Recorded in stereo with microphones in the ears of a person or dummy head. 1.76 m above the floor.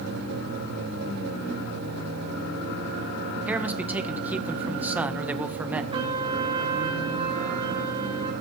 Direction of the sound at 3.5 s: 10° right (ahead or behind).